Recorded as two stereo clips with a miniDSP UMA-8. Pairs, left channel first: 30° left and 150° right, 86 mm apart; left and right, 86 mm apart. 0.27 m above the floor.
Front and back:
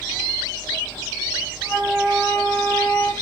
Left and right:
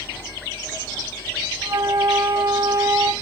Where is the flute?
40° right, 3.5 m.